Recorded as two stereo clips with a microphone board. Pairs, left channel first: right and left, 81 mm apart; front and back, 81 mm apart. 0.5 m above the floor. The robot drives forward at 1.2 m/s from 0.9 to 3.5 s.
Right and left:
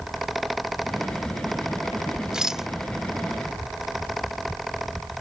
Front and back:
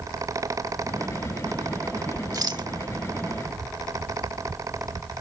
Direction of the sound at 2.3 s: 170° left.